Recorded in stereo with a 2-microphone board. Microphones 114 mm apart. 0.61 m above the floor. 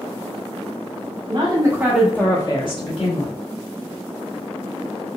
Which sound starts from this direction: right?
A woman speaking, at 1.3 s.